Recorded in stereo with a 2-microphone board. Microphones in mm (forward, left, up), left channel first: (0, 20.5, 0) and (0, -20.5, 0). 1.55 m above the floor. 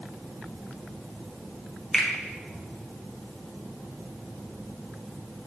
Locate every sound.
1.9 s a finger snap: 5° left (ahead or behind), 1.1 m